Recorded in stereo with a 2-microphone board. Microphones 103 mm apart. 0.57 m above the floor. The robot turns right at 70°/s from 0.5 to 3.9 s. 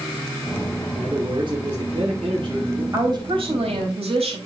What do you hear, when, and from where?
0.9 s a man speaking: 160° right, 5.5 m; by 2.8 s 30° right, 5.5 m
2.9 s a woman speaking: 150° right, 3.5 m; by 4.4 s 80° right, 3.5 m